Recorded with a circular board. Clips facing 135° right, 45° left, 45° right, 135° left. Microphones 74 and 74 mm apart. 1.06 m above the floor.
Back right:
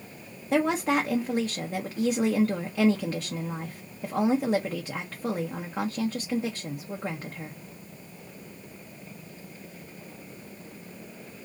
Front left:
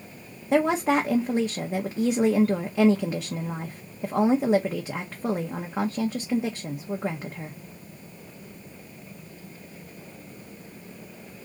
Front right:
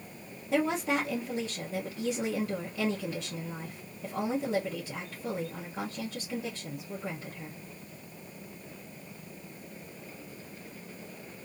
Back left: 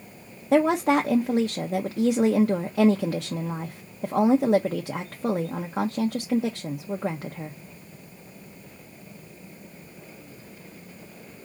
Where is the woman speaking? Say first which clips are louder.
Front left 3 dB, back left 9 dB; 120° left, 0.7 m.